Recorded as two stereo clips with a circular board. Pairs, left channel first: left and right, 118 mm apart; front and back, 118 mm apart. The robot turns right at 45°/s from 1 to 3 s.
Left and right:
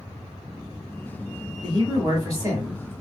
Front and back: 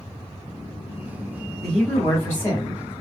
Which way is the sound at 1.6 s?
85° right.